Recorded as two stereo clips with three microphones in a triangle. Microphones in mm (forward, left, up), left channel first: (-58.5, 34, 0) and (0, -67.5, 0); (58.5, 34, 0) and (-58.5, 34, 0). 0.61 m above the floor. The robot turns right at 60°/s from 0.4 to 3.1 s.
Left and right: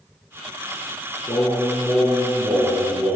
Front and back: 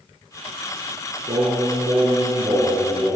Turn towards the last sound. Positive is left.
turn(degrees=-65)